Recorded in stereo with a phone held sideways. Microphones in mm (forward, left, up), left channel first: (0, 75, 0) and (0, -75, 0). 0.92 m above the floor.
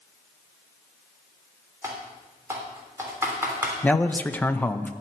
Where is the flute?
I don't hear a flute.